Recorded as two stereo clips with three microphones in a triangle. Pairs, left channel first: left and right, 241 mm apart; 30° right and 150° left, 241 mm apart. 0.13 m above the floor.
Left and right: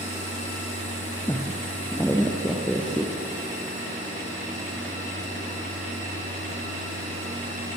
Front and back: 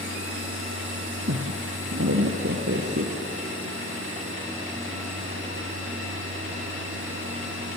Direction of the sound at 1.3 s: 165° left.